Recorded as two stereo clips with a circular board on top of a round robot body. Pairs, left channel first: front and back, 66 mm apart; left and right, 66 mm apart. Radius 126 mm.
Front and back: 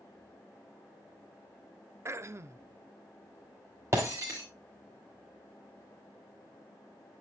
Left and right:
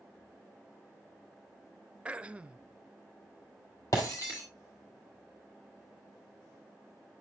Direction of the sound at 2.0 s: 155° right.